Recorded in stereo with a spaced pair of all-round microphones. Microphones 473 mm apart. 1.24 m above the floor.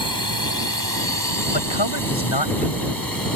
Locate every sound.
0.0 s a drone: 45° right (ahead or behind)
1.5 s a man speaking: 60° left (ahead or behind)